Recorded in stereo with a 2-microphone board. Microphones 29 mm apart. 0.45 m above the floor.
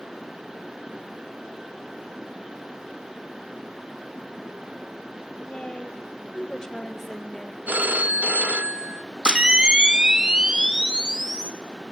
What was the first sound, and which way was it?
A woman speaking, 50° left (ahead or behind).